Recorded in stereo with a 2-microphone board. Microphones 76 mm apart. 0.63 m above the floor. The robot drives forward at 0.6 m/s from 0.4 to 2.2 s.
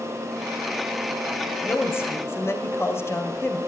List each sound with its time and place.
1.6 s a woman speaking: 30° left (ahead or behind), 2.5 m; by 3.6 s 35° left (ahead or behind), 2.5 m